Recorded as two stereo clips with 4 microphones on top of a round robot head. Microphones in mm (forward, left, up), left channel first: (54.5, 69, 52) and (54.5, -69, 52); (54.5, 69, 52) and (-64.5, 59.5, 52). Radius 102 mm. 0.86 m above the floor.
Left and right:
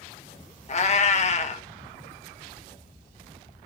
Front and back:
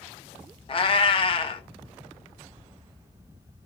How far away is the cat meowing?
About 0.7 m.